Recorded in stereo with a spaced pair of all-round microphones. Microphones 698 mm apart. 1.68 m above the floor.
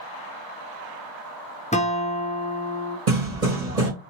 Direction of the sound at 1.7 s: 10° left (ahead or behind).